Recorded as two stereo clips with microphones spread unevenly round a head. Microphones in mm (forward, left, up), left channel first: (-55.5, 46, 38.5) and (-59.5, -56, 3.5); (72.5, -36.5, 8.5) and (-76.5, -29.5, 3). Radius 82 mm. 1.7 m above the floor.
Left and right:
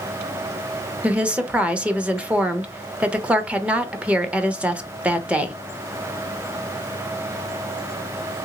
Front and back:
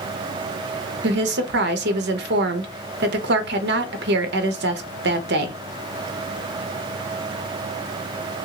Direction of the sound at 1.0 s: 175° right.